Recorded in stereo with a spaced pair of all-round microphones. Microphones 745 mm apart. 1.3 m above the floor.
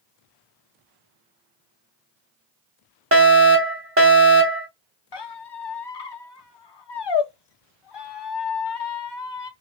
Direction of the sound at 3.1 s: 20° right (ahead or behind).